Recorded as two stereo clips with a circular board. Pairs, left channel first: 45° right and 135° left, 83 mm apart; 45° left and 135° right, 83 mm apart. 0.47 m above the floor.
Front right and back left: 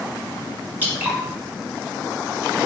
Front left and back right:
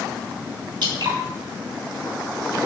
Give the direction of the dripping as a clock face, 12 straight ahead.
5 o'clock.